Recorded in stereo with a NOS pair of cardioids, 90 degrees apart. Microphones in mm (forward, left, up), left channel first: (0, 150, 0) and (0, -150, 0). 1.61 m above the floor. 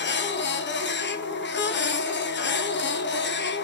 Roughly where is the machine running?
Ahead left.